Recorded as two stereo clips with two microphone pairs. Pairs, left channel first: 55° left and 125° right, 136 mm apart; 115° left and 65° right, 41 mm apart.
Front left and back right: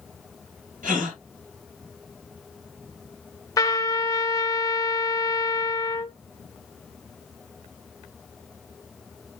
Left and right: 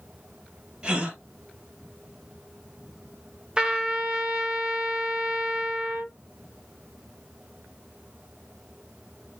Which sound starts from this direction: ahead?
A trumpet, at 3.6 s.